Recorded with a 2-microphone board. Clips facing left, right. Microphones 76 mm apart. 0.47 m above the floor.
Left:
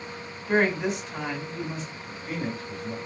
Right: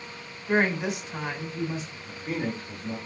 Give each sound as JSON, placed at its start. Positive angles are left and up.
{"t": 0.5, "sound": "a woman speaking", "side_deg": -10, "distance_m": 1.5}
{"t": 2.1, "sound": "a man speaking", "side_deg": -45, "distance_m": 2.0}